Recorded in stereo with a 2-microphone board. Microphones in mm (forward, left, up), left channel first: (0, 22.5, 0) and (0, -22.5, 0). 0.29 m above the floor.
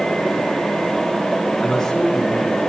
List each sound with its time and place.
1.6 s a man speaking: 20° left (ahead or behind), 4 m